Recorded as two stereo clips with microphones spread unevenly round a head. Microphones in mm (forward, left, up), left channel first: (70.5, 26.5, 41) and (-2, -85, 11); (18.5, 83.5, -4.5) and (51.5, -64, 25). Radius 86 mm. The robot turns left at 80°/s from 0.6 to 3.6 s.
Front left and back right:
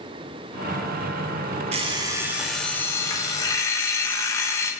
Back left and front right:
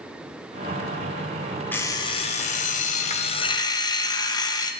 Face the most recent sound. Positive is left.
turn(degrees=40)